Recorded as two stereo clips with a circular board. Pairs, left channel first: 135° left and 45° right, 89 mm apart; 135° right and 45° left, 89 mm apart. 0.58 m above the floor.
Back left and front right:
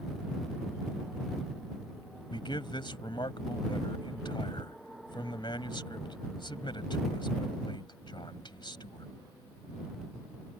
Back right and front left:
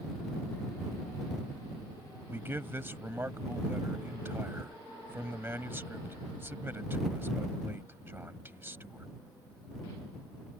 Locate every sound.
2.3 s a man speaking: 110° left